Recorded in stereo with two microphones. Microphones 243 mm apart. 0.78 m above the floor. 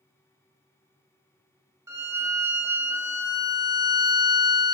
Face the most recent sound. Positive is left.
turn(degrees=-15)  # may be behind; listen again after turning